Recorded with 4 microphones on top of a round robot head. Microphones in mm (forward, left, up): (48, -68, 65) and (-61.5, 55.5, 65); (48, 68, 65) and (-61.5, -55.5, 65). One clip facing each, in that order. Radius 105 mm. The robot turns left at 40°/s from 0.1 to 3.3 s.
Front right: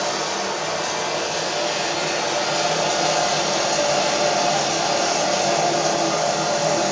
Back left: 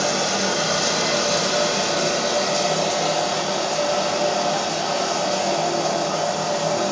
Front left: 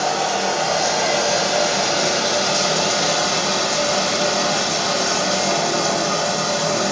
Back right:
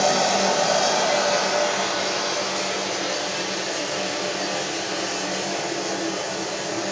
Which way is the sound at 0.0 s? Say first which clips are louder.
Back left 2 dB, back right 1 dB; 165° left.